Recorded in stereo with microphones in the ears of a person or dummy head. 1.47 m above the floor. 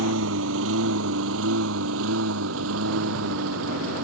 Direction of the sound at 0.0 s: 70° right (ahead or behind).